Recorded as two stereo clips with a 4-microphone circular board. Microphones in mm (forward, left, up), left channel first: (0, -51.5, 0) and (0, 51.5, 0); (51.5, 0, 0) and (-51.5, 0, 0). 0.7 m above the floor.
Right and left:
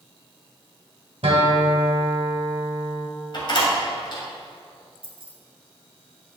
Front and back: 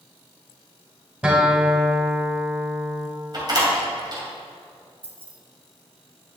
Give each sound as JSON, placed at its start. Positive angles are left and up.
{"t": 1.2, "sound": "a guitar", "azimuth_deg": 105, "distance_m": 2.0}
{"t": 3.3, "sound": "a door slam", "azimuth_deg": -130, "distance_m": 2.0}
{"t": 5.0, "sound": "keys jangling", "azimuth_deg": 110, "distance_m": 1.3}